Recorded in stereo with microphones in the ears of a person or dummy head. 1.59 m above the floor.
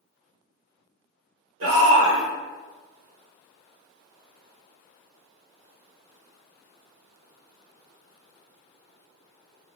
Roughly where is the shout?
Right.